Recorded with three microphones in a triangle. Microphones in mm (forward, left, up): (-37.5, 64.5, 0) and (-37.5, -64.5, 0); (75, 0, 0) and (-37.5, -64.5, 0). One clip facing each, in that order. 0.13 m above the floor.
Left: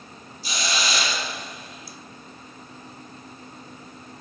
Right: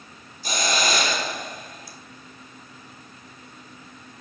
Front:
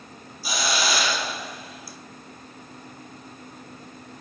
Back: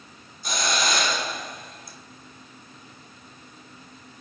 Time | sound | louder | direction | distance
0.4 | a hiss | right 4 dB, even | 55° right | 0.9 m